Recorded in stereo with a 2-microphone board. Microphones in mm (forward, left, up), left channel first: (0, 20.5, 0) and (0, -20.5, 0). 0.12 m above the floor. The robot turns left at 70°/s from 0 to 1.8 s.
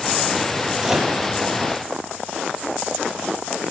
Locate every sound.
0.8 s a microwave: 20° right (ahead or behind), 2.5 m; by 1.2 s 5° left (ahead or behind), 2.5 m